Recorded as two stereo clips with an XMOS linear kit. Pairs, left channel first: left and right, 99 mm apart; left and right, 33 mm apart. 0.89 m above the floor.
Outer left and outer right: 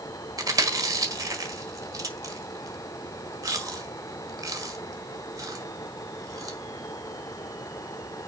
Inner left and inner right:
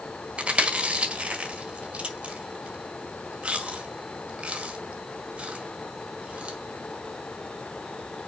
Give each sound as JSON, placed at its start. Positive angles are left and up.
{"t": 0.4, "sound": "chewing", "side_deg": -35, "distance_m": 1.7}